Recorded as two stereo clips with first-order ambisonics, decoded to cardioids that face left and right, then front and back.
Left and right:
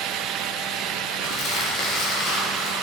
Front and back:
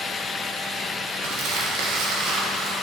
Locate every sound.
1.2 s crumpling: 145° left, 2 m